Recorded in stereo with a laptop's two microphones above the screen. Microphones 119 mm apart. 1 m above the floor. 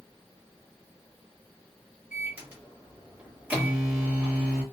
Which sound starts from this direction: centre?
A microwave, at 2.1 s.